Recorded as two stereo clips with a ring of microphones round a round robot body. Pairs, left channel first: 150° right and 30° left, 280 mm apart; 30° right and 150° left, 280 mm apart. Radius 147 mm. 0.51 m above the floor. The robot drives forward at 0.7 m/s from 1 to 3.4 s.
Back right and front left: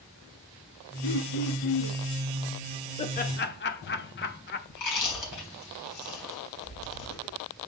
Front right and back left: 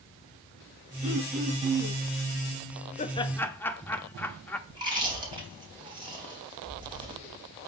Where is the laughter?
85° right, 0.9 m; by 4.6 s 110° right, 0.9 m.